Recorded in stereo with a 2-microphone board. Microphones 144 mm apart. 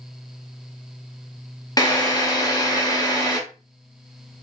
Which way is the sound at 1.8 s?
25° left (ahead or behind).